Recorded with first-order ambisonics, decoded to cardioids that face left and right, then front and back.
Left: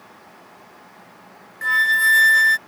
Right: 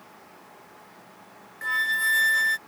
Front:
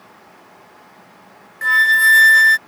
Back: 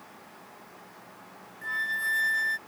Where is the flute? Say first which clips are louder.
Left 8 dB, front 17 dB; 20° left.